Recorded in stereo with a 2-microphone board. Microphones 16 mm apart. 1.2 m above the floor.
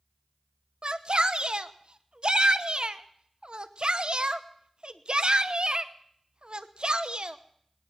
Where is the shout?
50° right (ahead or behind), 0.8 m.